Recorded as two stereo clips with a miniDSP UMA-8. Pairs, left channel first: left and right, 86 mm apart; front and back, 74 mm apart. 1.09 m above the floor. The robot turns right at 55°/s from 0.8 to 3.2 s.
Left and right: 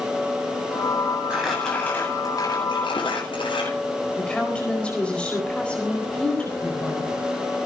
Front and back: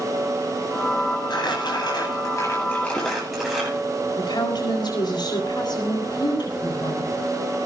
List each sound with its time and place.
1.3 s crumpling: 10° right, 10 m; by 3.7 s 95° left, 10 m
4.2 s a woman speaking: 15° left, 4.5 m